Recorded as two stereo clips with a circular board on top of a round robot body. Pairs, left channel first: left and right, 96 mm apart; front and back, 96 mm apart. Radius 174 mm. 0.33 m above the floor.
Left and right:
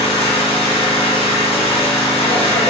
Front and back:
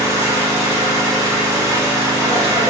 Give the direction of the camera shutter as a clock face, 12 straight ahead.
I don't hear a camera shutter.